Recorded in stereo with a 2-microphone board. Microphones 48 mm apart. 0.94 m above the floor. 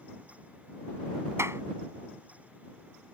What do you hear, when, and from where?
1.4 s a clap: 70° right (ahead or behind)